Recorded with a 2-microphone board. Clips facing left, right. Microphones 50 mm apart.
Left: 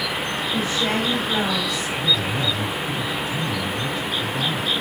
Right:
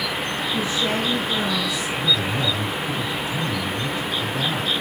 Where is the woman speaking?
50° left (ahead or behind), 4 m.